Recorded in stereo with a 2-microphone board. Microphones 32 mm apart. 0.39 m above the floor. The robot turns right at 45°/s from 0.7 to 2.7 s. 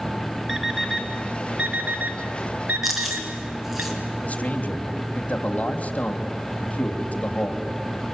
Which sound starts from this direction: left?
A man speaking, at 4.2 s.